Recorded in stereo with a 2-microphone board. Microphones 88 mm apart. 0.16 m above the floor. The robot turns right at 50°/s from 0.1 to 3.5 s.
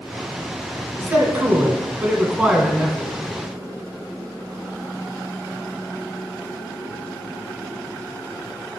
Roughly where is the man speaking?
Right.